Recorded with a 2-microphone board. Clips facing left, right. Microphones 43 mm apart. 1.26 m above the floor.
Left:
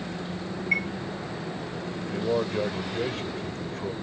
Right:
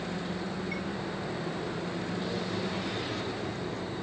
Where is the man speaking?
50° left (ahead or behind).